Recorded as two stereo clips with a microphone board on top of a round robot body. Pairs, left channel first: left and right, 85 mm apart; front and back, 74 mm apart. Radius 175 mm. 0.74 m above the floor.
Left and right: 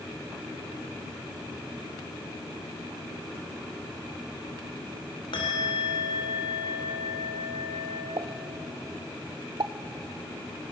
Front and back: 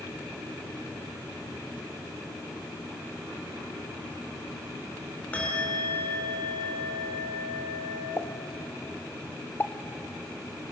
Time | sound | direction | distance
5.3 | a bell | 70° left | 3 m
8.2 | a pop | 60° right | 0.6 m